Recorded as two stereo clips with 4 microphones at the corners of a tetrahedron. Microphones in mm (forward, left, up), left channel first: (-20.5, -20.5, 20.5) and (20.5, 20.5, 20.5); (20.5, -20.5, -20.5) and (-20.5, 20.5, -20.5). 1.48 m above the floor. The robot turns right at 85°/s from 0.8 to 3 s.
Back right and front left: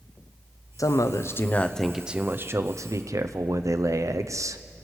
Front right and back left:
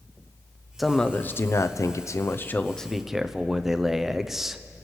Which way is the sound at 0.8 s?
135° right.